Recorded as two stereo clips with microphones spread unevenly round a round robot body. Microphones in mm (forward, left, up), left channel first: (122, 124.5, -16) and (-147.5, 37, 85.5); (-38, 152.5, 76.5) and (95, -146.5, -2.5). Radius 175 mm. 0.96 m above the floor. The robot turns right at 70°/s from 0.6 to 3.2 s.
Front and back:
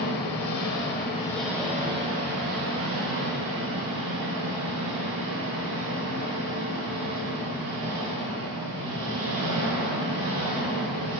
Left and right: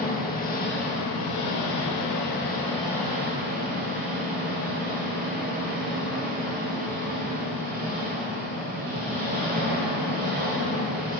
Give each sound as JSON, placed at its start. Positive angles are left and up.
{"t": 0.0, "sound": "an engine running", "azimuth_deg": 50, "distance_m": 4.0}